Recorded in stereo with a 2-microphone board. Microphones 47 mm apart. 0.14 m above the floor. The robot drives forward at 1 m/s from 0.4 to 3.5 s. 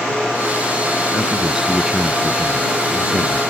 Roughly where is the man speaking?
Centre.